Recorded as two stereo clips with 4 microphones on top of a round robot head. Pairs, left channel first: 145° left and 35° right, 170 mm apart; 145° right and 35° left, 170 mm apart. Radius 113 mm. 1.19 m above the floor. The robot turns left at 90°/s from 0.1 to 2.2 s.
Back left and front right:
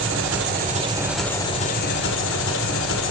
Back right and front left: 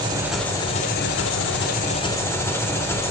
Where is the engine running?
30° right, 1.5 m; by 3.1 s 140° left, 1.5 m.